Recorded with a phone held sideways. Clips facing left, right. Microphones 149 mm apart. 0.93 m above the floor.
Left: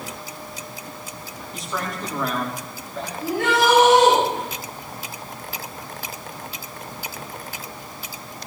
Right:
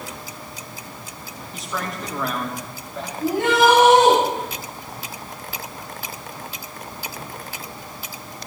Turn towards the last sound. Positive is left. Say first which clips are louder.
# right 3 dB
turn(degrees=-25)  # may be behind; listen again after turning